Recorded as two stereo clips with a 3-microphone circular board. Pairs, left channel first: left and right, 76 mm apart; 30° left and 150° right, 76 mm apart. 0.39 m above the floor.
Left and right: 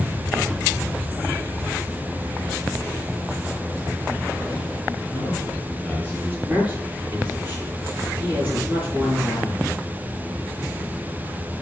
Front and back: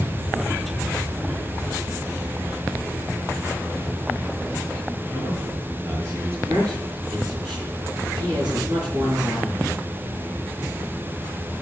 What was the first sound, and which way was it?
A man speaking, 160° left.